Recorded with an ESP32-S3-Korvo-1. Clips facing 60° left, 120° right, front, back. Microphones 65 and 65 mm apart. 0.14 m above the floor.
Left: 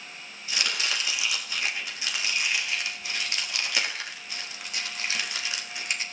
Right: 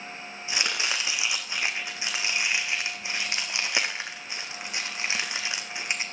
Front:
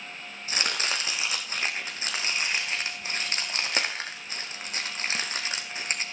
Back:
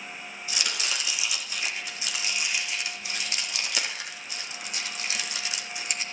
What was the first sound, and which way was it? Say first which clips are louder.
Chopping: right 1 dB, front 3 dB; 50° right.